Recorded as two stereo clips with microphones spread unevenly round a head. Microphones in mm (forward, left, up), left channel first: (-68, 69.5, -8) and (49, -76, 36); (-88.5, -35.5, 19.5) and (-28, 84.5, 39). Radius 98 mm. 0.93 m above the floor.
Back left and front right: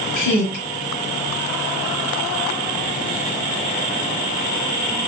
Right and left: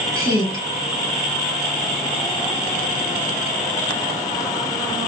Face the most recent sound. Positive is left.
turn(degrees=125)